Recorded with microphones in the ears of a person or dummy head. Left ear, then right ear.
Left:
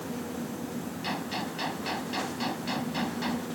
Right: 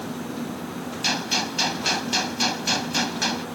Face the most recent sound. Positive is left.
turn(degrees=-80)